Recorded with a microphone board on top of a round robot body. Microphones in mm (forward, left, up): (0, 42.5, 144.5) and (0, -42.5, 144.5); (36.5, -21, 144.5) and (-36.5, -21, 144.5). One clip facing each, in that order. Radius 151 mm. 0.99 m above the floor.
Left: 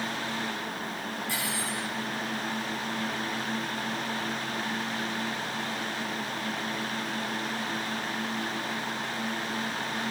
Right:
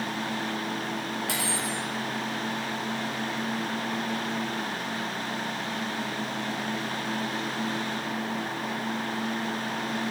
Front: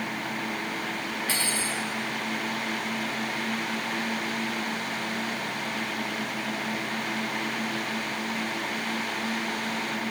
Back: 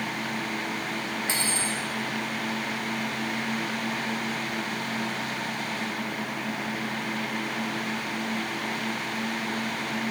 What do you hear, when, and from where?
1.3 s cutlery clinking: 110° right, 1.4 m